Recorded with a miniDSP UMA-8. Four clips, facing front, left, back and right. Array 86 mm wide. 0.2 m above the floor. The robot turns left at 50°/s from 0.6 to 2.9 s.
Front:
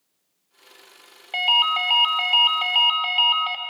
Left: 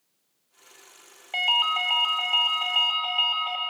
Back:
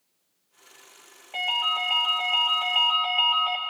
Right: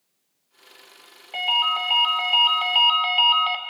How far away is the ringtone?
About 0.6 m.